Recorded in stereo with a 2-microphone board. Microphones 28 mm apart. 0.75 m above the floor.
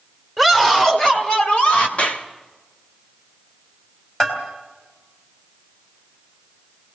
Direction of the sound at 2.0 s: 45° left (ahead or behind).